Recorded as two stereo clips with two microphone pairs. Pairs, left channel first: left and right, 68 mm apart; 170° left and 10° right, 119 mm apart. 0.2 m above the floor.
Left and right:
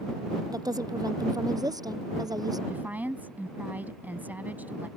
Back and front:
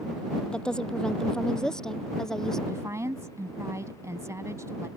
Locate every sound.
0.5 s a woman speaking: 110° right; by 2.6 s 105° right
2.7 s a woman speaking: 55° right